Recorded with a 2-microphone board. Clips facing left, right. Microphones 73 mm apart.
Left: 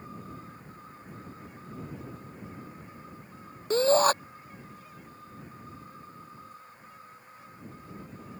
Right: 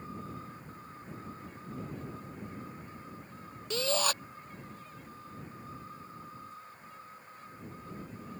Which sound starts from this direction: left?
A shout, at 3.7 s.